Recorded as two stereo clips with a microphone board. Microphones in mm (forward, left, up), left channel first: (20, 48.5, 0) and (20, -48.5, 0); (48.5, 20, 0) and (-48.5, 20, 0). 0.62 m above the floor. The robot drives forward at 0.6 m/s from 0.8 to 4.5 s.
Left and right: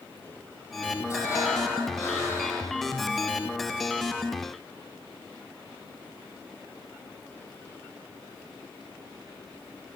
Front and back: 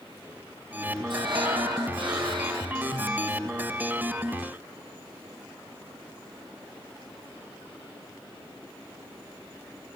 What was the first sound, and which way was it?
Breathing, 145° left.